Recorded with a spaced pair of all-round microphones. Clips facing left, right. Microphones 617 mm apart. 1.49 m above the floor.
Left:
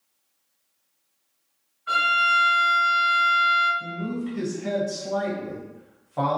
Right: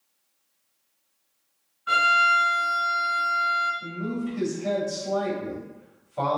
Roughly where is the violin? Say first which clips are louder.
Right 2 dB; right.